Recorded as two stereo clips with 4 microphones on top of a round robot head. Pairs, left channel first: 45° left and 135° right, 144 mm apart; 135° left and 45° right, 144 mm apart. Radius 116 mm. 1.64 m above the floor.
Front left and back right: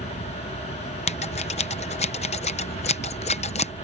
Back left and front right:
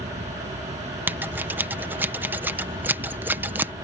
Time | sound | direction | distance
0.0 | an insect | straight ahead | ?
1.1 | scissors | 25° left | ?